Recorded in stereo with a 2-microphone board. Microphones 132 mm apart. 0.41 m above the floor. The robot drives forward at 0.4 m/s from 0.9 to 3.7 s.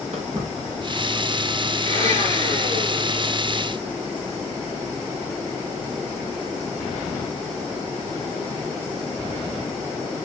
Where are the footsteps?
65° right (ahead or behind), 6 m; by 1.7 s 70° right (ahead or behind), 8 m.